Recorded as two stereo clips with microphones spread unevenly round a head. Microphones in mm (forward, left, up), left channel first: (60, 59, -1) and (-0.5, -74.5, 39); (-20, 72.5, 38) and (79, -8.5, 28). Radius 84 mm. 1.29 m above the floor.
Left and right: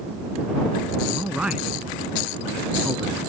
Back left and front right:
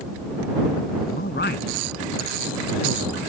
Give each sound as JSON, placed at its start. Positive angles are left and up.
{"t": 1.1, "sound": "a man speaking", "azimuth_deg": 160}